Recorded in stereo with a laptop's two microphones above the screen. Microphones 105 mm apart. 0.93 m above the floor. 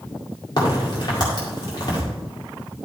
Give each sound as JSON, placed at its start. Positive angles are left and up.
{"t": 0.6, "sound": "a crack", "side_deg": 45, "distance_m": 2.0}